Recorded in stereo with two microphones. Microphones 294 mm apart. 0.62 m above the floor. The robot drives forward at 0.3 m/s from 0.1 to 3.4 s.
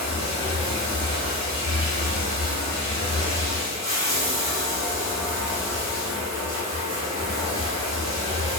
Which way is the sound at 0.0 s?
65° right (ahead or behind).